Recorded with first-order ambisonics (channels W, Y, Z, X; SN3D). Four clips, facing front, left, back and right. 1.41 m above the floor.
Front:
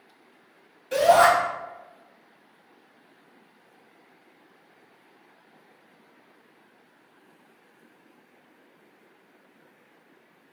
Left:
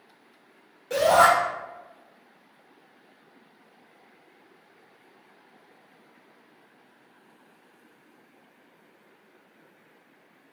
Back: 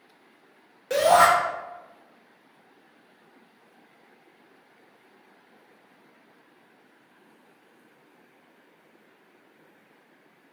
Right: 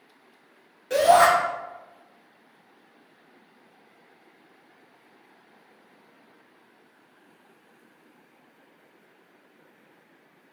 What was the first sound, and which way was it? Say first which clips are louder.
A shout: right 1 dB, even; 170° right.